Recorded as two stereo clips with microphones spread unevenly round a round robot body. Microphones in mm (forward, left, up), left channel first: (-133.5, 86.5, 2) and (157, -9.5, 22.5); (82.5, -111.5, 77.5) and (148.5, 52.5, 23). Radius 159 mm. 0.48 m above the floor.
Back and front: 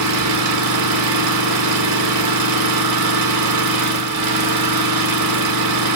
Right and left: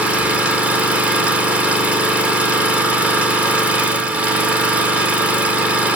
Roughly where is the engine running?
Ahead.